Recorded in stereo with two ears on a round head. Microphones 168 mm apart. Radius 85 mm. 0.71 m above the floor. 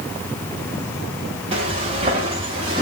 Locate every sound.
1.5 s footsteps: 30° right (ahead or behind), 7.5 m